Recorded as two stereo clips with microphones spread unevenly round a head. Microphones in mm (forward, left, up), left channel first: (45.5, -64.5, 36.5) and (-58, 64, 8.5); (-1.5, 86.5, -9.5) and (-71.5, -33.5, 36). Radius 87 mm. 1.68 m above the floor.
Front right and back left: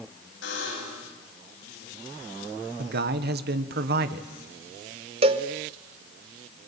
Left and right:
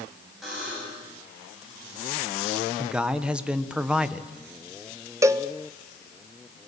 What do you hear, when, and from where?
0.4 s a buzzer: 35° right, 9.5 m
2.8 s a man speaking: 160° left, 1.3 m
5.2 s a cowbell: 170° right, 1.0 m